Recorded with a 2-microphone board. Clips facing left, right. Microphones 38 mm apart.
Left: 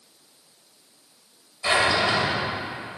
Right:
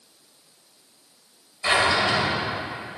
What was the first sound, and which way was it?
A drawer, 10° right (ahead or behind).